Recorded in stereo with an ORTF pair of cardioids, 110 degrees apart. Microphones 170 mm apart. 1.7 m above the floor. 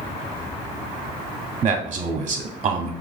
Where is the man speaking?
35° right, 0.6 m.